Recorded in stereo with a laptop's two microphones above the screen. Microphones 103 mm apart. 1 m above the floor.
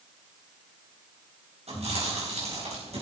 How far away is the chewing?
About 4 m.